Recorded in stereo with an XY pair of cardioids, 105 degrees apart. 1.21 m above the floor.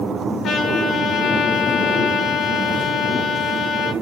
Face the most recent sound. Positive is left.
turn(degrees=60)